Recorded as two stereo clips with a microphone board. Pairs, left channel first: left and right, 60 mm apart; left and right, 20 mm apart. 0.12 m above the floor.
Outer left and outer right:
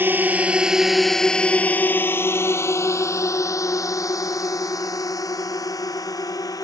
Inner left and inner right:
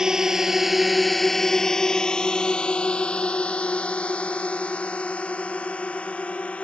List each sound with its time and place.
0.0 s a drone: 35° right (ahead or behind); by 6.6 s 70° left (ahead or behind)